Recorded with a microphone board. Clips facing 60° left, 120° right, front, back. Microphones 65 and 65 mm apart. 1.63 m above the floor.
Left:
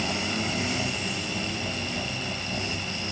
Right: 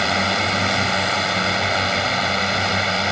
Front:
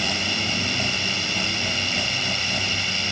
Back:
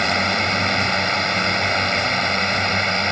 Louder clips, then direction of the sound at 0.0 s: Right 9 dB, back 7 dB; 140° right.